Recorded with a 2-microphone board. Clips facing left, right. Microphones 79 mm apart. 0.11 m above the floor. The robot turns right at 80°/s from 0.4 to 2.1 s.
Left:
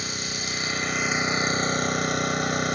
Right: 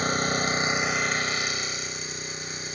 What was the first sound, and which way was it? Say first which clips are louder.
An engine running: right 8 dB; 45° right.